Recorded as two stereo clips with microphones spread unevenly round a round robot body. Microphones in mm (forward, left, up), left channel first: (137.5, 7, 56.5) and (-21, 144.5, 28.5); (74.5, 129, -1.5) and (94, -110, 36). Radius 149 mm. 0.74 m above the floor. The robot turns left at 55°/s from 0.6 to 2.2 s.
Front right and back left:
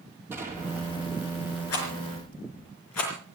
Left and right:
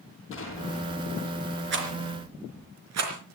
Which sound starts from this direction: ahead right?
A rattle, at 1.7 s.